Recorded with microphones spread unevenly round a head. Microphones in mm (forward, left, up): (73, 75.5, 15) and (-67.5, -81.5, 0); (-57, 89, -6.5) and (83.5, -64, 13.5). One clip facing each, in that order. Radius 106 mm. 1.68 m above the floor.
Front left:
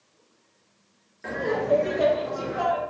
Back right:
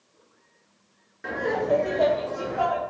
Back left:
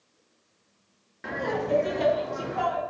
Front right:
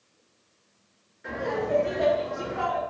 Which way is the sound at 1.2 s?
145° left.